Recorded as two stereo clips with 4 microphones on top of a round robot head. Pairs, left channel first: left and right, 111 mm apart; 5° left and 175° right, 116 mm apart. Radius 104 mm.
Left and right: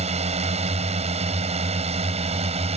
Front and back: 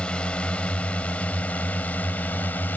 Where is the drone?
75° right; by 2.8 s 70° right.